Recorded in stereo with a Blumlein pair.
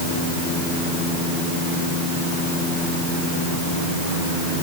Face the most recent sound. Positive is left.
No sound to turn to.